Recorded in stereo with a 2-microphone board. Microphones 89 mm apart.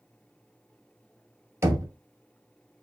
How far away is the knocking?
About 0.6 m.